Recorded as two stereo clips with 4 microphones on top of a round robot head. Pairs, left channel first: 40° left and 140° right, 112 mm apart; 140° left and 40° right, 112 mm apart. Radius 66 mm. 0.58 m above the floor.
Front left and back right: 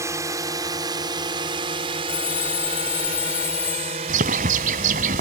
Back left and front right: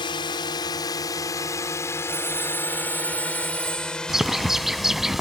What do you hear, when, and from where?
0.0 s a drone: 170° left; by 5.2 s 130° right
2.1 s a phone ringing: 35° left
4.1 s a bird: 125° right